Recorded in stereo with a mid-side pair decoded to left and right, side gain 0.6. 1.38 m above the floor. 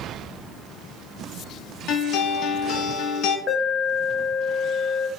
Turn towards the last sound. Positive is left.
turn(degrees=30)